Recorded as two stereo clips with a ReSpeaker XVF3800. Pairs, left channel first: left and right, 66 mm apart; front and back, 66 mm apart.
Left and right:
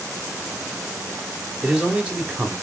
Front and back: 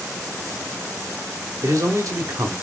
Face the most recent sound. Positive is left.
turn(degrees=-160)